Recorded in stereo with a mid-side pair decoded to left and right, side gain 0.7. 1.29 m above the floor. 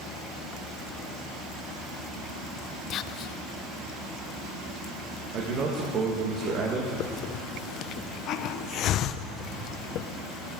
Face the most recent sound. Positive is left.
turn(degrees=50)